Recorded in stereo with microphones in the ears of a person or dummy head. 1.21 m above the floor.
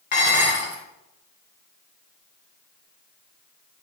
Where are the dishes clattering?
45° left (ahead or behind), 3 m.